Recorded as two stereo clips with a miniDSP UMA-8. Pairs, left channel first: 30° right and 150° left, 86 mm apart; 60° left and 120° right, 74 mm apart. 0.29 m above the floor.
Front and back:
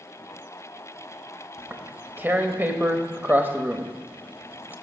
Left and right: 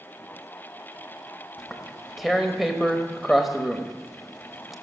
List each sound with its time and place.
1.6 s tearing paper: 155° left, 0.9 m